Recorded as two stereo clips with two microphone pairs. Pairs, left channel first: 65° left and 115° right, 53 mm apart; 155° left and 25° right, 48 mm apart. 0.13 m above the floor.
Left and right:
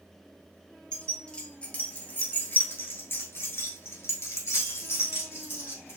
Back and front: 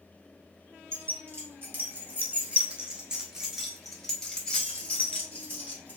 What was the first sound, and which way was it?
Keys jangling, 5° right.